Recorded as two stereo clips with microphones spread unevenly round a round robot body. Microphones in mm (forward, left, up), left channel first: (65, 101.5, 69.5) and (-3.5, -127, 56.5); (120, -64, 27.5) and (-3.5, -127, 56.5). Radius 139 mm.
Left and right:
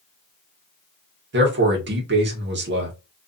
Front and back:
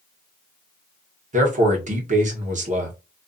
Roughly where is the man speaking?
Behind right.